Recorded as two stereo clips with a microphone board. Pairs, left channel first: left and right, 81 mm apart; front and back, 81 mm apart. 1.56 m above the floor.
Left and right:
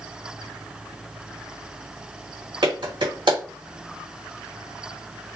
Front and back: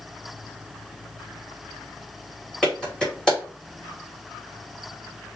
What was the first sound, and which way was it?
A clap, 80° right.